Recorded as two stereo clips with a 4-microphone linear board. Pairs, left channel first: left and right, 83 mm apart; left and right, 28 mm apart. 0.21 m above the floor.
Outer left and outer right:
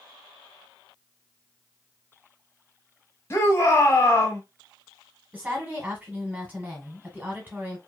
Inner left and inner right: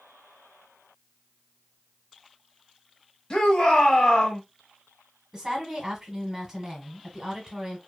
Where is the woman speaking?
20° right (ahead or behind), 1.3 m.